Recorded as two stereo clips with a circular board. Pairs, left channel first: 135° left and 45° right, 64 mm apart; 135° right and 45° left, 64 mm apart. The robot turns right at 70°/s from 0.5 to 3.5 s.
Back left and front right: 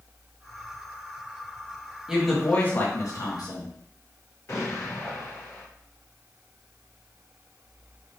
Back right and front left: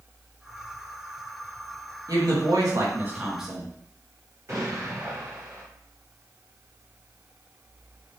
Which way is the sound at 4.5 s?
85° left.